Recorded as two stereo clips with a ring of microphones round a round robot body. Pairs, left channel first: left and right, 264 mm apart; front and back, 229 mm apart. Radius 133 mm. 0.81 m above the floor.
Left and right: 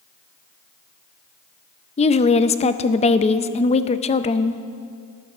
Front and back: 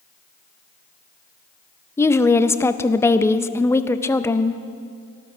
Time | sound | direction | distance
2.0 | a woman speaking | 65° left | 0.5 m